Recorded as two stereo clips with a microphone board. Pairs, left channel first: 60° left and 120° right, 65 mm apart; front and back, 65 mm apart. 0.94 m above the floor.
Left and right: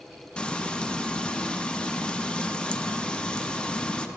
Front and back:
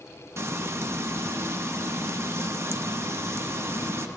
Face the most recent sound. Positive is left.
turn(degrees=135)